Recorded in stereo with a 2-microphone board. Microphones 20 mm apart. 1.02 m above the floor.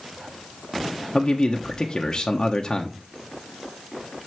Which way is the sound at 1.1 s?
30° left (ahead or behind).